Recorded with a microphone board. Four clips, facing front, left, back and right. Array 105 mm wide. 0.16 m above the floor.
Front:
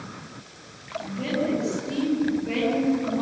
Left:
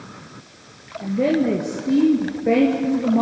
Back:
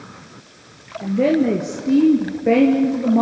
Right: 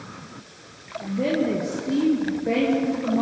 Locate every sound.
1.0 s a woman speaking: 160° left, 3 m